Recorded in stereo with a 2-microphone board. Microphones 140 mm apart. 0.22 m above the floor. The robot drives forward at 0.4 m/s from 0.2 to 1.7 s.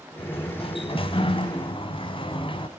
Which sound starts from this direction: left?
A sliding door, at 0.2 s.